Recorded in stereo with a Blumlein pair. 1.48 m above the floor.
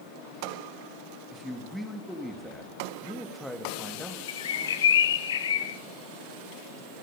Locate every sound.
1.3 s a man speaking: 5° left, 3 m
4.3 s a bird: 65° left, 1.3 m